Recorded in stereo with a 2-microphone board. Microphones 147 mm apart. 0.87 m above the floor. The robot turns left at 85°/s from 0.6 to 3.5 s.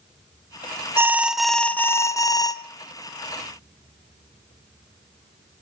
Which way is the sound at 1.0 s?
15° right (ahead or behind).